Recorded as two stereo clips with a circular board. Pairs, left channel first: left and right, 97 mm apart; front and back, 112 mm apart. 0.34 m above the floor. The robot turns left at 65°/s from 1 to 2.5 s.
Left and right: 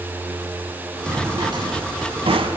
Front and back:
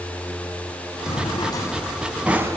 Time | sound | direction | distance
1.1 | a drawer | 20° right | 1.5 m